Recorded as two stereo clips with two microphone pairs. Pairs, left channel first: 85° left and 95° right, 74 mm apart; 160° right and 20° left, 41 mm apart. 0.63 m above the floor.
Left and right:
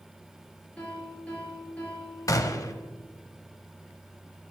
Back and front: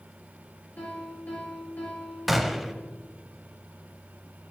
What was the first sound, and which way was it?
A piano, 160° left.